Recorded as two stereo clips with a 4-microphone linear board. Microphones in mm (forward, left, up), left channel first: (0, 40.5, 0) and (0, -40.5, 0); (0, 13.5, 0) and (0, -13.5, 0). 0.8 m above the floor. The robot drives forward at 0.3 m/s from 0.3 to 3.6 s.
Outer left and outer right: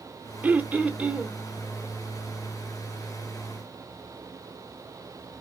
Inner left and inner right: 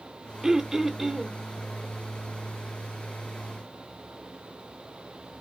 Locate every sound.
0.4 s throat clearing: 25° right (ahead or behind), 0.5 m; by 1.4 s 15° right (ahead or behind), 0.8 m